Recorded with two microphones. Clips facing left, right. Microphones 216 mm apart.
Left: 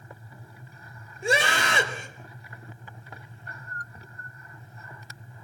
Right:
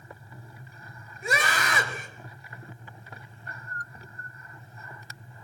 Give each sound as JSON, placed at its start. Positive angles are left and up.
{"t": 1.2, "sound": "a scream", "side_deg": 30, "distance_m": 5.0}